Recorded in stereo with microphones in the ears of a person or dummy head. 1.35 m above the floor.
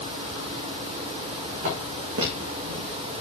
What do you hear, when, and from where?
1.6 s footsteps: 60° right (ahead or behind), 4 m; by 3.2 s 55° right (ahead or behind), 2.5 m